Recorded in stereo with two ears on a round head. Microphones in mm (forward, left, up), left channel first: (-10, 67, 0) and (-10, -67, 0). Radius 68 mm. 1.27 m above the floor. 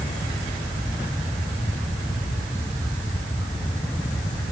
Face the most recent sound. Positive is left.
No sound to turn to.